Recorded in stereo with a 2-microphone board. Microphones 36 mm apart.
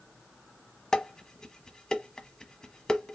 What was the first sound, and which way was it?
Dishes clattering, 20° left (ahead or behind).